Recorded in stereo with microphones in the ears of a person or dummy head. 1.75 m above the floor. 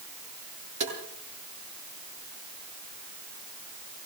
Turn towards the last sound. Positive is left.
turn(degrees=-40)  # may be behind; listen again after turning